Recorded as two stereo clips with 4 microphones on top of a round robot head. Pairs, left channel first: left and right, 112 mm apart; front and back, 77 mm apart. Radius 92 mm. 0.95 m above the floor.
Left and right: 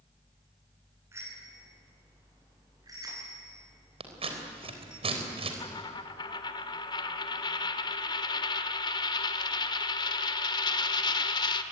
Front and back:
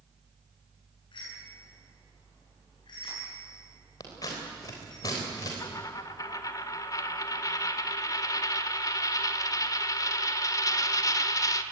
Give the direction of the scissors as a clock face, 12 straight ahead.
2 o'clock.